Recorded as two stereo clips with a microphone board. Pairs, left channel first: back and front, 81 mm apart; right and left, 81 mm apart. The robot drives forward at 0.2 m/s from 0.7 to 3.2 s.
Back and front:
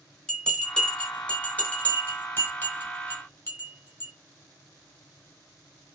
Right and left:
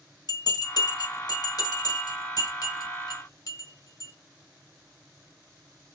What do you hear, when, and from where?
0.3 s a bell: 100° right, 1.2 m; by 4.1 s 125° right, 1.4 m